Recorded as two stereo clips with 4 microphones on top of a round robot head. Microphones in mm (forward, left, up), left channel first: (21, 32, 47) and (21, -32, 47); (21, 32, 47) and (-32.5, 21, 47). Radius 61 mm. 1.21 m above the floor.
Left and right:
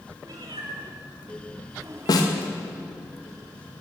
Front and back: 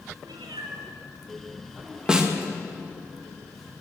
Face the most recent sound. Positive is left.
turn(degrees=115)